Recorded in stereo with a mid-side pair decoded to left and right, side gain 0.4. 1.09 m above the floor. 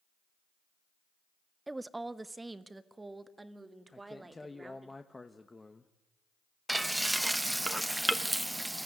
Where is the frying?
10° right, 1.0 m.